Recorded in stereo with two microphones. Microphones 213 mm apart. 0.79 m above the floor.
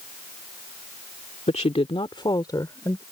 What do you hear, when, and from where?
1.5 s a woman speaking: 30° left (ahead or behind); by 3.0 s 15° left (ahead or behind)